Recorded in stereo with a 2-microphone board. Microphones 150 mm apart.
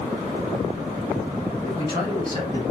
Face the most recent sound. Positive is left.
turn(degrees=30)  # may be behind; listen again after turning